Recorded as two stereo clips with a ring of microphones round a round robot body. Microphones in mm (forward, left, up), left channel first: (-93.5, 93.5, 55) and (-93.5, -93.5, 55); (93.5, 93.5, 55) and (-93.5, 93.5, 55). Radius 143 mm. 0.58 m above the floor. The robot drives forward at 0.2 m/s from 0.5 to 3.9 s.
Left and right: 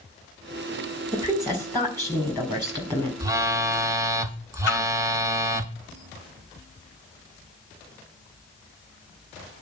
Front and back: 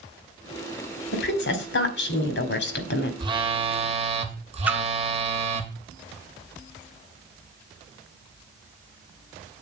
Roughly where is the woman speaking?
Ahead.